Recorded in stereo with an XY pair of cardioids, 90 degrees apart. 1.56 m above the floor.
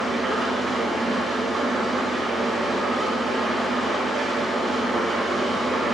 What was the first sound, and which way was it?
An engine running, 60° right.